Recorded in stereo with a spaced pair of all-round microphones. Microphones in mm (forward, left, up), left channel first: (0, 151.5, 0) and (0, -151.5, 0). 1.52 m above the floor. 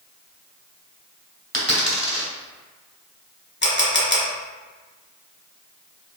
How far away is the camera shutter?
About 0.9 m.